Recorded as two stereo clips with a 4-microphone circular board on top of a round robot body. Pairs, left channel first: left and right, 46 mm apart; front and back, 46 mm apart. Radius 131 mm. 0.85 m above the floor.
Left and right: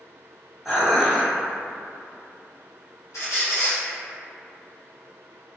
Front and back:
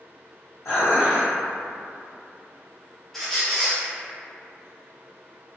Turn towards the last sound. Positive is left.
turn(degrees=85)